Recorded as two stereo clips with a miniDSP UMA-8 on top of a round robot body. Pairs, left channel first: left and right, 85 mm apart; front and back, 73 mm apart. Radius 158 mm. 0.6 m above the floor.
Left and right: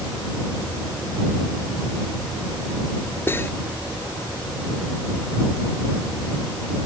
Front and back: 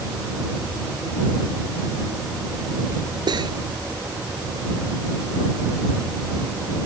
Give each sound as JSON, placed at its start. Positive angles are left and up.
{"t": 3.3, "sound": "cutlery clinking", "azimuth_deg": 155}